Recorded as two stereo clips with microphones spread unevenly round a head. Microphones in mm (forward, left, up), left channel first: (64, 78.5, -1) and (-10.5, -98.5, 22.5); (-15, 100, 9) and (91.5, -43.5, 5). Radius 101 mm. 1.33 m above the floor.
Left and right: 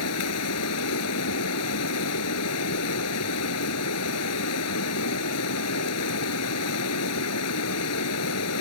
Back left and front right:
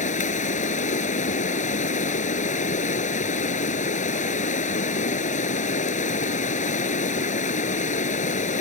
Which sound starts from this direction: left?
Running water, at 0.0 s.